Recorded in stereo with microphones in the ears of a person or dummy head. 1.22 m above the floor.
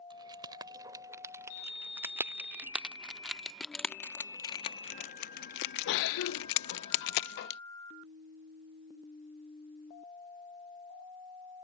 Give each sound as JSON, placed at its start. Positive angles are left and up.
{"t": 0.1, "sound": "keys jangling", "side_deg": -25}